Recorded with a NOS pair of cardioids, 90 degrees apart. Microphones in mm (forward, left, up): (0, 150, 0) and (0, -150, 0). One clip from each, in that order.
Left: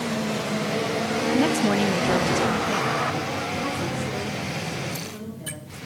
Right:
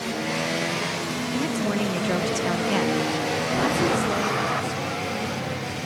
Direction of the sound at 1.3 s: 40° left.